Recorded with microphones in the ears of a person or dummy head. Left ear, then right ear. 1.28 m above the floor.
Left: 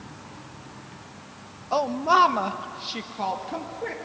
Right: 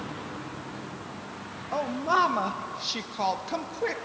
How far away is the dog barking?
I don't hear a dog barking.